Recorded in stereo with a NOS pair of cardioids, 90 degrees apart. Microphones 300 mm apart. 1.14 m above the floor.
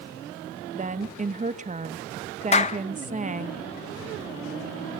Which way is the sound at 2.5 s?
20° left.